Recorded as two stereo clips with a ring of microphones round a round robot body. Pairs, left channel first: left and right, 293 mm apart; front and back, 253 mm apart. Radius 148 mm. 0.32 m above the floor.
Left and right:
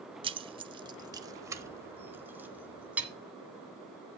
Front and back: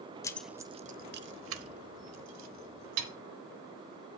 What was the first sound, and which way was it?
Keys jangling, 55° right.